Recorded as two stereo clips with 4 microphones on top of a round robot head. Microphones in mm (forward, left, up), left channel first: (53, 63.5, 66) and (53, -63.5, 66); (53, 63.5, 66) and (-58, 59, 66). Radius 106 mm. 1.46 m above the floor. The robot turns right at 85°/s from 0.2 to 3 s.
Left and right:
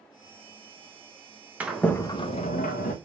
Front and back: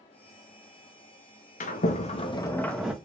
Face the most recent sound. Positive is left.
turn(degrees=110)